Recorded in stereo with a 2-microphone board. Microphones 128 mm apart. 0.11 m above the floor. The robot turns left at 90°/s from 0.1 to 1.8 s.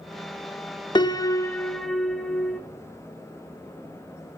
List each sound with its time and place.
0.9 s a piano: 85° left, 1.1 m; by 2.6 s 5° left, 1.1 m